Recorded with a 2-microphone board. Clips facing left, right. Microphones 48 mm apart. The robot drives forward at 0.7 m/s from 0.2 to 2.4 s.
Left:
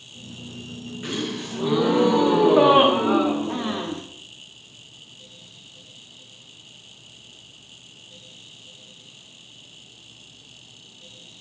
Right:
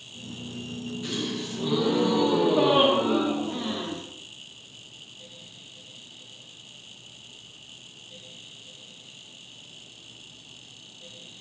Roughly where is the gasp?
Left.